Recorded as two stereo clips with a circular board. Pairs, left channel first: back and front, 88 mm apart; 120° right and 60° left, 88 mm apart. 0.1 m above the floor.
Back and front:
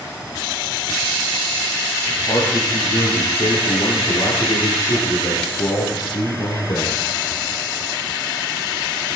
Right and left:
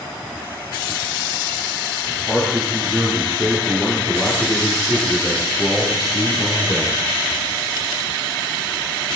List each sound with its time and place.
2.1 s a man speaking: 135° left, 8 m; by 7.1 s 155° left, 5 m